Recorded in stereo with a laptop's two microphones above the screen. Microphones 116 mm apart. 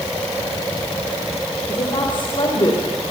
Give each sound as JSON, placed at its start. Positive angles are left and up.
{"t": 1.7, "sound": "a woman speaking", "side_deg": 45, "distance_m": 4.0}